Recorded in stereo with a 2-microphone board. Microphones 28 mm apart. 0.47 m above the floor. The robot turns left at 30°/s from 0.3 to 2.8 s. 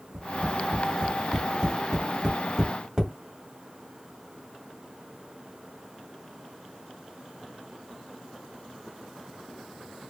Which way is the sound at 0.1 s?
45° right (ahead or behind).